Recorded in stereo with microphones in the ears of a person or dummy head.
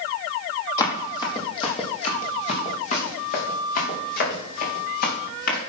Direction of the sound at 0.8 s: 25° left (ahead or behind).